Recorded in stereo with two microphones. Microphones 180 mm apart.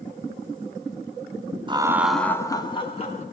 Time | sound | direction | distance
1.7 | laughter | 25° right (ahead or behind) | 1.0 m